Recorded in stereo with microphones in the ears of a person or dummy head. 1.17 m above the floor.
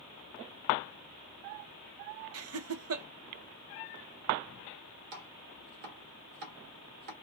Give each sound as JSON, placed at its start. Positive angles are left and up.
{"t": 2.3, "sound": "laughter", "side_deg": -70, "distance_m": 0.5}
{"t": 5.1, "sound": "chopping", "side_deg": -65, "distance_m": 1.3}